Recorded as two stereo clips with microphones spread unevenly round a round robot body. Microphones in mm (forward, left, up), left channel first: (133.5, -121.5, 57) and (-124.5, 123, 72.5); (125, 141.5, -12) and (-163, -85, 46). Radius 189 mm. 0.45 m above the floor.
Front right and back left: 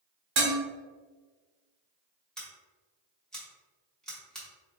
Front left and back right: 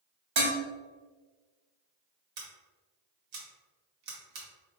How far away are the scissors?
About 1.6 m.